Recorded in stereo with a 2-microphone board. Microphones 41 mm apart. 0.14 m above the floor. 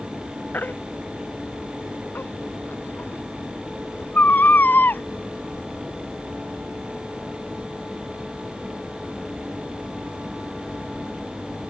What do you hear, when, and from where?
0.5 s a baby crying: 45° left (ahead or behind)